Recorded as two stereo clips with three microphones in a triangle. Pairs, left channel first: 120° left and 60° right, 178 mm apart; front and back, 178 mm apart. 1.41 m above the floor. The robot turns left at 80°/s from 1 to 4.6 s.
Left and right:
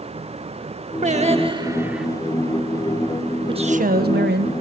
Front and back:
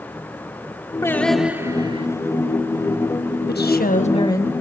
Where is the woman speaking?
Straight ahead, 1.3 m; by 4.5 s 80° right, 1.3 m.